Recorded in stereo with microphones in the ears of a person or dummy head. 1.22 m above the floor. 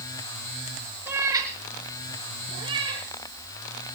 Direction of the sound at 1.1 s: 5° right (ahead or behind).